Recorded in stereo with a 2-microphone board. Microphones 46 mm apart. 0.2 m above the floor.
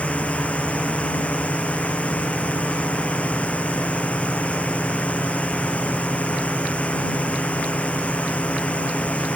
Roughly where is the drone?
Left.